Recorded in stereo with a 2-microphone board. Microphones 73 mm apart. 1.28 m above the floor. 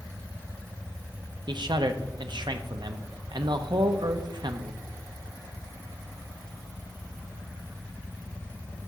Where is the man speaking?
70° right (ahead or behind), 0.7 m.